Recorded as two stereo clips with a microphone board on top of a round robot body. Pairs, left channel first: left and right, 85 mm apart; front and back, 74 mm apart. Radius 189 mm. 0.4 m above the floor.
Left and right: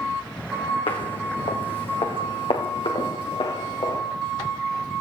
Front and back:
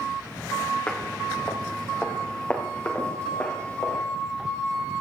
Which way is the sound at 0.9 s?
70° left.